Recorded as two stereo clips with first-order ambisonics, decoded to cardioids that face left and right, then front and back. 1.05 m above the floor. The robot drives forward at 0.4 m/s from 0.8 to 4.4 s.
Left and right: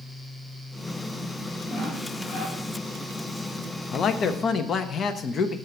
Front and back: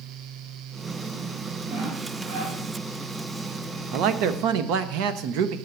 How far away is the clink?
No clink in this recording.